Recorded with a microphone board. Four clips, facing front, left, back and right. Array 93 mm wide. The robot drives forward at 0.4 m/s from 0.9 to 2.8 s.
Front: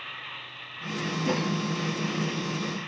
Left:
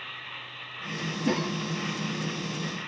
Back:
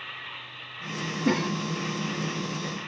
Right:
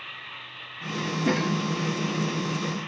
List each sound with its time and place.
1.2 s a cough: 115° right, 3.5 m; by 1.5 s 120° right, 3.5 m